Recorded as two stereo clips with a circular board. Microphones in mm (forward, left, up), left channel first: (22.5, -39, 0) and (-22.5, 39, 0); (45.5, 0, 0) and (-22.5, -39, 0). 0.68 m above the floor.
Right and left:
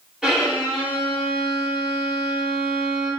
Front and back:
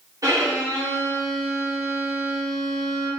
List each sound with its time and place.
0.2 s a violin: 160° right, 0.9 m